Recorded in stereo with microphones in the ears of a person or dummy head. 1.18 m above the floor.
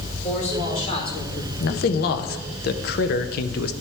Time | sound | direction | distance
0.2 | a man speaking | 40° left (ahead or behind) | 3.5 m
1.6 | a man speaking | 50° left (ahead or behind) | 0.7 m